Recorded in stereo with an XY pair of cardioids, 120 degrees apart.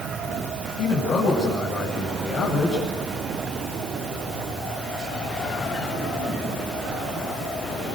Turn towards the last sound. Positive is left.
turn(degrees=50)